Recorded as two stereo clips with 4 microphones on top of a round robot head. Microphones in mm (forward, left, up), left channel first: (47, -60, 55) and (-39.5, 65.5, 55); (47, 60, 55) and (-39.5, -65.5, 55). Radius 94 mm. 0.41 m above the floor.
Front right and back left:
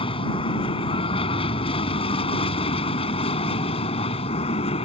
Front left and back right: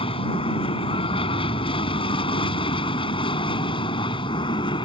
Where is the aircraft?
Straight ahead; by 4.9 s 5° right.